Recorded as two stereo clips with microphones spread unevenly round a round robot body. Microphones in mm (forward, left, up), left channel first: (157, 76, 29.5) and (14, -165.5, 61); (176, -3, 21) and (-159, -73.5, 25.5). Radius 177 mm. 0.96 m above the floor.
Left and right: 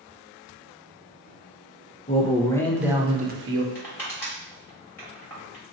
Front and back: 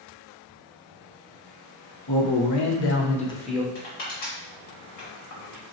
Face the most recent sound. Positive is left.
turn(degrees=-25)